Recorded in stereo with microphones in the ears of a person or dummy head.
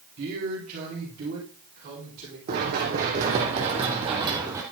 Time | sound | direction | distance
0.2 | a man speaking | 50° right (ahead or behind) | 3 m
2.5 | running footsteps | 50° right (ahead or behind) | 3 m